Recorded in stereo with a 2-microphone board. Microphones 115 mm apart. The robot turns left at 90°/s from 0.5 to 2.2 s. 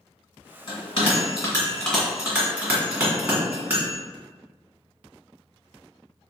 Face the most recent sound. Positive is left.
turn(degrees=-15)  # may be behind; listen again after turning